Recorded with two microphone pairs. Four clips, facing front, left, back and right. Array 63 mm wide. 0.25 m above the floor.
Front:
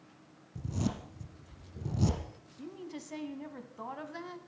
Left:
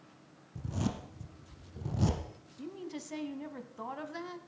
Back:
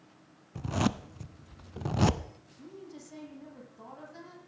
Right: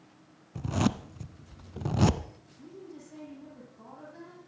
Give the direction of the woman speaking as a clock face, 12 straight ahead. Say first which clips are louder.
Left 4 dB, front 3 dB; 10 o'clock.